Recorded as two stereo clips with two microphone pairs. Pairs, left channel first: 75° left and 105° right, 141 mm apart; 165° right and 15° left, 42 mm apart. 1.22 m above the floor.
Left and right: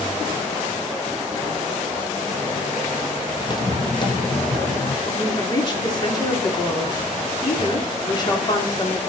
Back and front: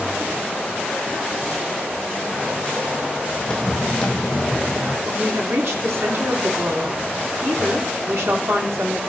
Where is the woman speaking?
20° left, 2.5 m.